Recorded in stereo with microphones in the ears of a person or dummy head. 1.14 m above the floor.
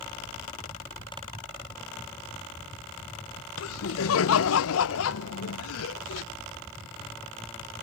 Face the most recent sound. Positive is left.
turn(degrees=70)  # may be behind; listen again after turning